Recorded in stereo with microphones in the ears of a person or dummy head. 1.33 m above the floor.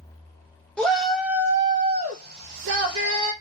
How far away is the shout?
About 1.0 m.